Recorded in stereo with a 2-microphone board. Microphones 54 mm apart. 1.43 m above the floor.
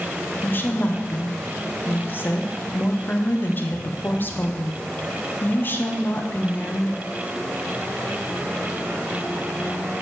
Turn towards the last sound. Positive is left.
turn(degrees=35)  # may be behind; listen again after turning